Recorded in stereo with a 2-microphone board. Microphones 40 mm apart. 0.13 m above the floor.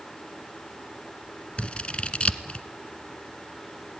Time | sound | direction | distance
1.6 | scissors | 30° left (ahead or behind) | 1.0 m